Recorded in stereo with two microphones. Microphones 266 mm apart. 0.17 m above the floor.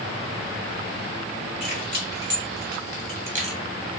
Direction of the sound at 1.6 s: 40° right (ahead or behind).